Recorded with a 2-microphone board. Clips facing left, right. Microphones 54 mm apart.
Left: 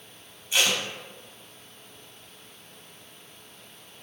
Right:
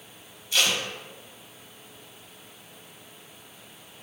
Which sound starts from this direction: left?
Tape being pulled, at 0.5 s.